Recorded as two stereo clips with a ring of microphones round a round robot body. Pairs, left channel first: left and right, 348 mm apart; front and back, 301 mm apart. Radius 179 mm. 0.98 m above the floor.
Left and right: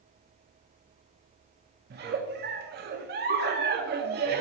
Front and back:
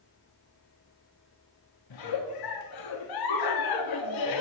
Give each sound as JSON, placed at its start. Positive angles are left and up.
{"t": 1.9, "sound": "a giggle", "azimuth_deg": -30, "distance_m": 0.6}